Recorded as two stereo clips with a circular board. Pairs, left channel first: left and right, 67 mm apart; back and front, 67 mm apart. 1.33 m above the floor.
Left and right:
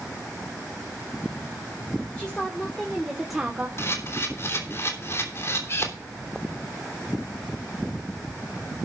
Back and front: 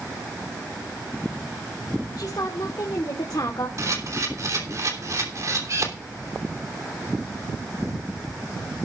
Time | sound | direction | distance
2.2 | a woman speaking | 165° left | 2.5 m
3.8 | a camera shutter | 40° left | 3 m